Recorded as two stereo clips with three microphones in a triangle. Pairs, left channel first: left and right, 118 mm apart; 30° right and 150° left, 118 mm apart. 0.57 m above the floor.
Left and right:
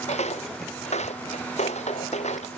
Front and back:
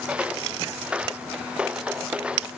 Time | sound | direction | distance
0.1 | footsteps | 70° left | ?